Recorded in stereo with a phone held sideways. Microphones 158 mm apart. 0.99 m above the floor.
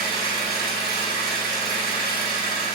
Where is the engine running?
80° left, 1.5 m.